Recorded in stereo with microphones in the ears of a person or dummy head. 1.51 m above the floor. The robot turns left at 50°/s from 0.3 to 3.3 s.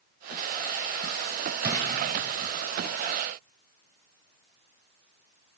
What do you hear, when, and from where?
1.6 s a drawer: 15° right (ahead or behind), 4.5 m; by 1.8 s 5° right (ahead or behind), 4.5 m